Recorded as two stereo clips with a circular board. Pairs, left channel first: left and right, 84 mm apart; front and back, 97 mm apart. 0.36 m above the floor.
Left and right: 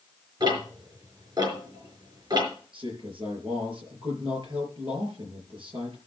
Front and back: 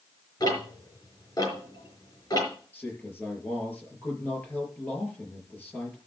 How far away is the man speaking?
About 6 m.